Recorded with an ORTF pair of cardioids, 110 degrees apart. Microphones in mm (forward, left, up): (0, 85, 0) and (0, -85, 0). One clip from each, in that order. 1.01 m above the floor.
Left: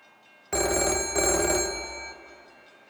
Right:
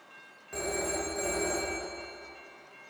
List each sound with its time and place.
0.5 s a phone ringing: 65° left, 0.5 m